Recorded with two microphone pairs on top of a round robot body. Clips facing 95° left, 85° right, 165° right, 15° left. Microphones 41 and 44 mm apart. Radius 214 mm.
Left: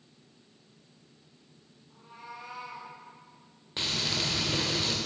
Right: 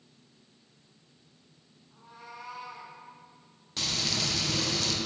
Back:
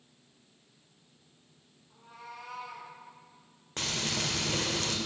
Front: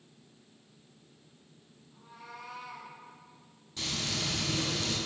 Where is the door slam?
I don't hear a door slam.